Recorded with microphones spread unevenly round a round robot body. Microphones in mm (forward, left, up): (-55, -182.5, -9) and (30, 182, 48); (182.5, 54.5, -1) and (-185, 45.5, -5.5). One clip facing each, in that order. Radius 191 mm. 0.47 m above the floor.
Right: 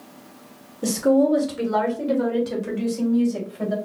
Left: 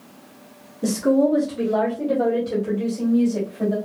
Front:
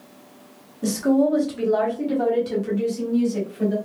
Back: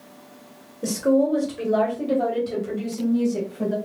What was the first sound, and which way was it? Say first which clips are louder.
A woman speaking: even, front 1 dB; 30° right.